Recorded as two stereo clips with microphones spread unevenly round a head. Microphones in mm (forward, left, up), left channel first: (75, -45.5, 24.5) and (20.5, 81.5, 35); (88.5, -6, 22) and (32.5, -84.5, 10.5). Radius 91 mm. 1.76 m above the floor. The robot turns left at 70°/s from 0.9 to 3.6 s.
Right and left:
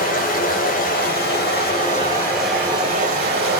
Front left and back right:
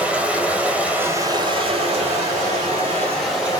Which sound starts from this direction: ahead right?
Running water, at 0.0 s.